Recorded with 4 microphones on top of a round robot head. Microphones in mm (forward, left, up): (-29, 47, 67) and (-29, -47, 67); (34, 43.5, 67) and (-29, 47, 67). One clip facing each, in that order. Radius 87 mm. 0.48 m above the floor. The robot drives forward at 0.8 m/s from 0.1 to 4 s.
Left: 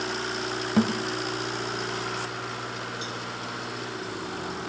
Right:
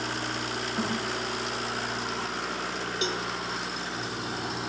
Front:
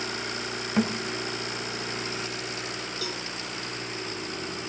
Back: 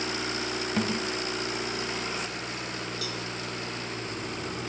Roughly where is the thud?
Left.